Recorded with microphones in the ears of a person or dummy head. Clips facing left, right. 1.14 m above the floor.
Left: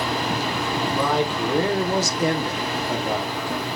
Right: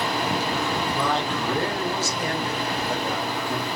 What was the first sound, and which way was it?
A man speaking, 10° left (ahead or behind).